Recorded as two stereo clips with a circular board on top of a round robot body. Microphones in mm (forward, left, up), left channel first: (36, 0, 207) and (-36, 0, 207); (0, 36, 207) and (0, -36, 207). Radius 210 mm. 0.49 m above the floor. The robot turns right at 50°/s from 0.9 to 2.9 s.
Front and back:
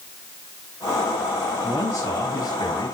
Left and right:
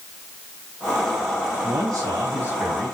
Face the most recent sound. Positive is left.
turn(degrees=-5)